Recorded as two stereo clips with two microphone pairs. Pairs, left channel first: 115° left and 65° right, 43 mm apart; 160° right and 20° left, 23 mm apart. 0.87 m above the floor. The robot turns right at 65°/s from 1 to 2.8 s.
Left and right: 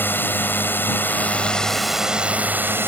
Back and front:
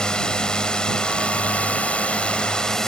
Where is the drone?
150° left; by 2.9 s 95° right.